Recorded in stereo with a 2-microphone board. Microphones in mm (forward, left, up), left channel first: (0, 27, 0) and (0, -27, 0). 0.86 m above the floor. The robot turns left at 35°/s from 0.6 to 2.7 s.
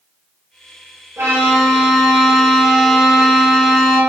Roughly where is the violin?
Behind right.